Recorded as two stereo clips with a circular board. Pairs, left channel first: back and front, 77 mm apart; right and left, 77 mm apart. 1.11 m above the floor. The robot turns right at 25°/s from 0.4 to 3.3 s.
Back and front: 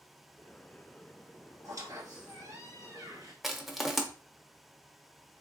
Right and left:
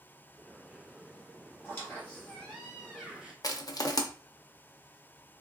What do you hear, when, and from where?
1.6 s a squeak: 40° right, 1.9 m; by 3.3 s straight ahead, 1.9 m
3.4 s crushing: 90° right, 0.7 m